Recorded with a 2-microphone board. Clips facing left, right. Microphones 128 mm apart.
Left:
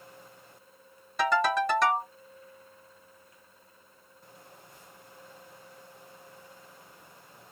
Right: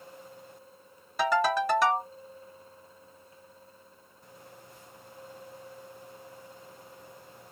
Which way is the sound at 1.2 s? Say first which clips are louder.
Even; 5° right (ahead or behind).